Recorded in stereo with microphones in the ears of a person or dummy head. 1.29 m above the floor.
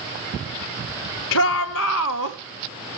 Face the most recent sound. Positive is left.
turn(degrees=75)  # may be behind; listen again after turning